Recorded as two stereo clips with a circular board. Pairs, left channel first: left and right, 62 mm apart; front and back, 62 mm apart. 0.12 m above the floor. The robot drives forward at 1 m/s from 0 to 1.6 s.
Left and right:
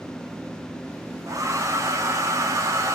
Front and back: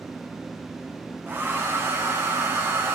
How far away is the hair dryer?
About 2 m.